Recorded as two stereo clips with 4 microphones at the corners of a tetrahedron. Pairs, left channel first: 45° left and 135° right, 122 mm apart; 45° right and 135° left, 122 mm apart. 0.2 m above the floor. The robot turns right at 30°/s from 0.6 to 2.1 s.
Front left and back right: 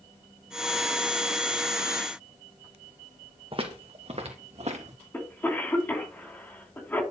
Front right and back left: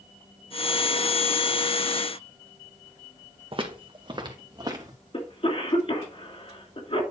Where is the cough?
25° right, 2.5 m.